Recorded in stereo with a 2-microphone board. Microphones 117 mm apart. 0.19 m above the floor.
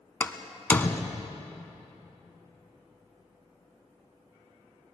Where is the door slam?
15° left (ahead or behind), 1.1 m.